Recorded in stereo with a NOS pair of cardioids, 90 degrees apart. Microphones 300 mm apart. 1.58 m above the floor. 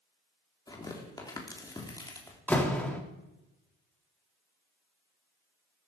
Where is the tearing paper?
10° left, 3.5 m.